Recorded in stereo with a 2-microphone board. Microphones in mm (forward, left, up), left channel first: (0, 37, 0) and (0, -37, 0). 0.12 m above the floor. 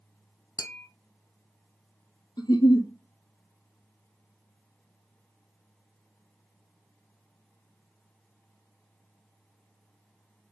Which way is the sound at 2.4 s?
60° left (ahead or behind).